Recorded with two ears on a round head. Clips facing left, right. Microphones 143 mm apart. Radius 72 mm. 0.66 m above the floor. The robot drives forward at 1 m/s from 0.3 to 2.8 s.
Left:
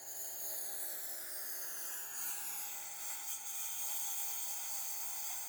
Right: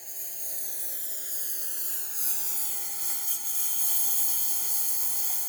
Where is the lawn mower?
25° right (ahead or behind); by 5.5 s 65° right (ahead or behind).